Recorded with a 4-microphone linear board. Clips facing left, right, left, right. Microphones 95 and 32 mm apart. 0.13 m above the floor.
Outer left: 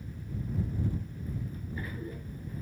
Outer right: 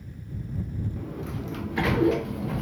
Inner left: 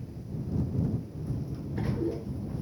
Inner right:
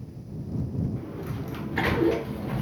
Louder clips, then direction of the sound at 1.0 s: Outer right 6 dB, inner right 3 dB; 85° right.